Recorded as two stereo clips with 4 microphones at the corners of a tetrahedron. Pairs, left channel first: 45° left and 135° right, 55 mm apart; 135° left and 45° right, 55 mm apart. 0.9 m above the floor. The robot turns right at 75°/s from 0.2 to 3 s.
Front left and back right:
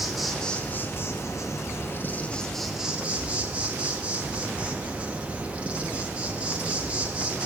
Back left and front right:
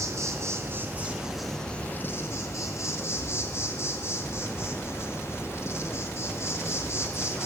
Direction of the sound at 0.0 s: 50° right.